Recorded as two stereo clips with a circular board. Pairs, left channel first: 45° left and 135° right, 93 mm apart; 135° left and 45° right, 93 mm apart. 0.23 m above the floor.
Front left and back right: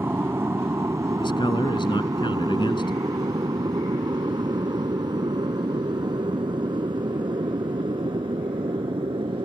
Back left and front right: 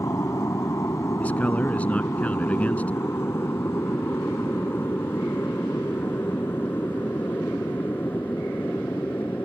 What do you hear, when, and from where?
0.0 s an aircraft: 175° left; by 9.4 s 155° right
1.2 s a man speaking: 65° left